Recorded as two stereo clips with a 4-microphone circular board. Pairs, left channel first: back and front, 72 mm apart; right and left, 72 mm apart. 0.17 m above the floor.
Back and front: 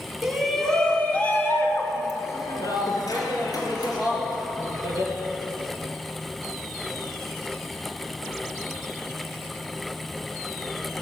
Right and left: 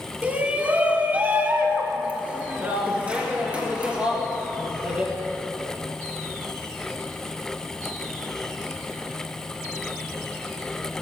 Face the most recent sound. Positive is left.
turn(degrees=165)